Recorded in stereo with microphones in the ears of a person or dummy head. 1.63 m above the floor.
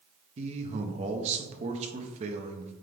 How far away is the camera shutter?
No camera shutter in this recording.